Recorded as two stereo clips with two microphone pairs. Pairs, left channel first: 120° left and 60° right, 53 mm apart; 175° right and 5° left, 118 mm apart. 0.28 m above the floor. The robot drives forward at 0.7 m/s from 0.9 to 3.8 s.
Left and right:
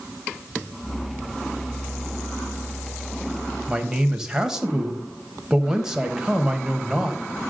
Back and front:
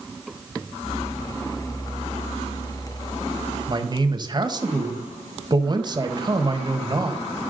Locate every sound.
3.7 s a man speaking: 10° left, 1.1 m; by 7.5 s 15° left, 1.1 m